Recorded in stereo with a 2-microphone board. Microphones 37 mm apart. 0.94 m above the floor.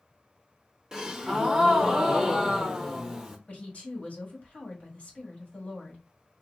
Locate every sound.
0.9 s a gasp: 10° right (ahead or behind), 0.8 m
3.5 s a woman speaking: 40° left (ahead or behind), 2.0 m